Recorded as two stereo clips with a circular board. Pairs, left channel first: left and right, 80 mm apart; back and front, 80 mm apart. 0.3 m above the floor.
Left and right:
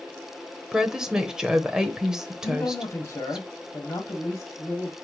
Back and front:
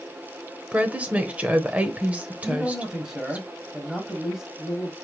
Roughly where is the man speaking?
Left.